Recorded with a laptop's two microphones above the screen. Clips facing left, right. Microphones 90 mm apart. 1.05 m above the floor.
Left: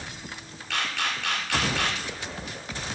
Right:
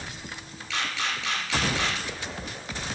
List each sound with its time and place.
0.7 s a camera shutter: 55° left (ahead or behind), 3.5 m